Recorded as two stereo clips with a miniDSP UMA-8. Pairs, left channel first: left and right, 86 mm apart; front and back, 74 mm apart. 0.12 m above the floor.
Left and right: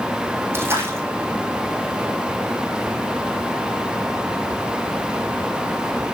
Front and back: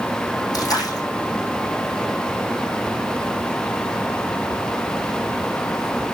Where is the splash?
30° right, 3.5 m.